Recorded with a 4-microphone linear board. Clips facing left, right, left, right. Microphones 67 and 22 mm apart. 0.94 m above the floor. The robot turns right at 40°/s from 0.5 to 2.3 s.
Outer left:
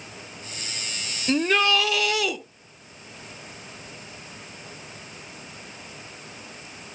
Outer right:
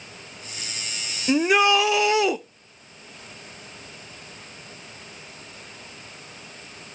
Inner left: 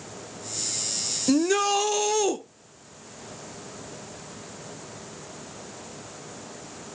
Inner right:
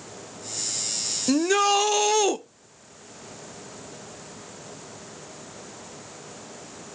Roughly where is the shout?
Centre.